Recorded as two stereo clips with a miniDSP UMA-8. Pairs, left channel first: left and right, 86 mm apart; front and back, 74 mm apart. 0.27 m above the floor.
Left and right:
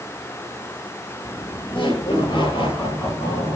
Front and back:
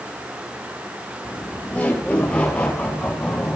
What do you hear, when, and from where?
1.2 s laughter: 70° left, 7 m; by 3.6 s 85° left, 7.5 m